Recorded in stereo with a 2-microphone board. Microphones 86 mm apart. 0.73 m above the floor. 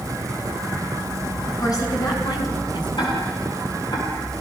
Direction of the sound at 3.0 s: 65° left (ahead or behind).